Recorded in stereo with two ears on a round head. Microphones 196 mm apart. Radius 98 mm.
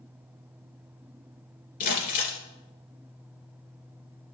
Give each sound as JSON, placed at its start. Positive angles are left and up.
{"t": 1.8, "sound": "crumpling", "side_deg": 45, "distance_m": 2.5}